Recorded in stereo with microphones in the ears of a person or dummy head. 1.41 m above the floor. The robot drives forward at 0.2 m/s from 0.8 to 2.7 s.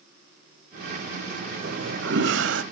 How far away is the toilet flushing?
About 0.9 m.